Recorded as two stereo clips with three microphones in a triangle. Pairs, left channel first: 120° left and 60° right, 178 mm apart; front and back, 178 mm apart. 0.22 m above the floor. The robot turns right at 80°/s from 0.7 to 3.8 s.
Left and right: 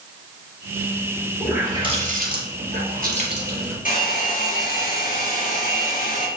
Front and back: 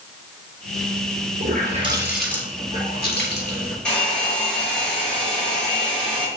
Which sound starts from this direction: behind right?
A running tap, at 1.4 s.